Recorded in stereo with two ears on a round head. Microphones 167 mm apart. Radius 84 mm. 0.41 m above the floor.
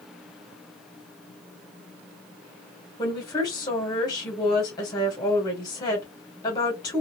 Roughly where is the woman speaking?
Left.